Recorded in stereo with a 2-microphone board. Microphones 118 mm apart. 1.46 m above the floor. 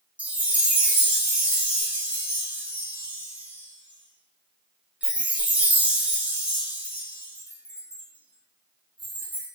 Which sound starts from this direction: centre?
A chime, at 0.2 s.